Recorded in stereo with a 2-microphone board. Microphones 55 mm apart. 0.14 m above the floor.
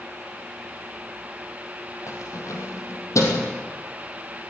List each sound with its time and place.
2.1 s keys jangling: 65° left (ahead or behind), 4 m